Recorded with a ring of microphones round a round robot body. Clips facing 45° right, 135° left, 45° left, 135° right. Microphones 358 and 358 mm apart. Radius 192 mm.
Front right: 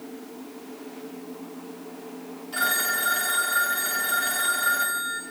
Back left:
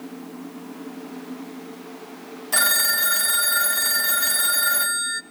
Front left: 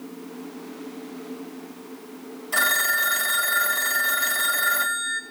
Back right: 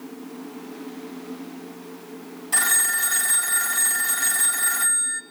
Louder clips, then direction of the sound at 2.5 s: Back left 1 dB, front left 4 dB; 140° left.